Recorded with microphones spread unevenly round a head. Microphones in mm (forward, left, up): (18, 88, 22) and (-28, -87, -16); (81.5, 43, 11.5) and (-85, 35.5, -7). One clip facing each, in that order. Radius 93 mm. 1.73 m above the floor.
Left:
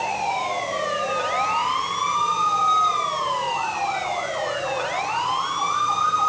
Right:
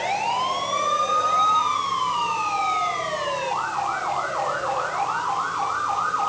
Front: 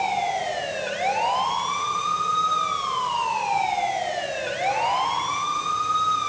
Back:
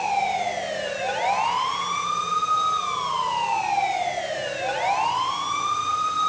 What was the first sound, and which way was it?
Only background noise.